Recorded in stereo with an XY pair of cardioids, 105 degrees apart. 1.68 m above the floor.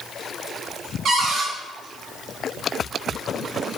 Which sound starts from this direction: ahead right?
A cupboard door, at 1.1 s.